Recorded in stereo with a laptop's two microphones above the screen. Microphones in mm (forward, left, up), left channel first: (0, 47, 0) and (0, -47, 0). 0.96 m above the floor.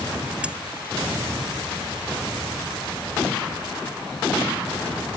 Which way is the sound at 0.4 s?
10° right (ahead or behind).